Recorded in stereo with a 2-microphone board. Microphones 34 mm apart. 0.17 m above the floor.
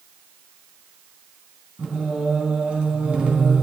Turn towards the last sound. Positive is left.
turn(degrees=-35)  # may be behind; listen again after turning